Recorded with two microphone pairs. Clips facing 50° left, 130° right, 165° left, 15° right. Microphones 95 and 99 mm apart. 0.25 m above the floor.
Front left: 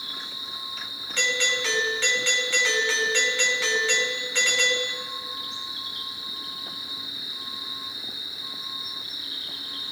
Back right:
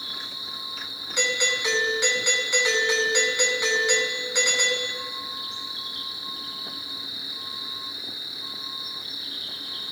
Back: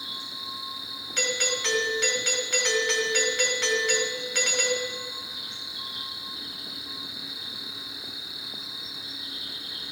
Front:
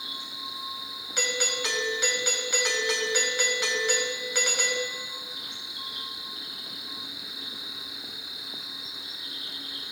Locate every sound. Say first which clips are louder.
0.0 s an insect: even, even; 10° left, 2.5 m
1.2 s a doorbell: back right 1 dB, back 1 dB; 80° right, 1.8 m